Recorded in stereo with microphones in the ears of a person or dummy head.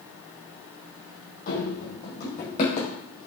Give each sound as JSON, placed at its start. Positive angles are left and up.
{"t": 1.5, "sound": "running footsteps", "side_deg": 45, "distance_m": 4.5}